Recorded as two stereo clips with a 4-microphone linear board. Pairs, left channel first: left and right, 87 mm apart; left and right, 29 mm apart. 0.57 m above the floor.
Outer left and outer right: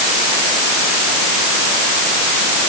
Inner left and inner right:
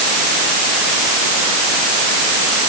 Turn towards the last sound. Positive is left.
No sound to turn to.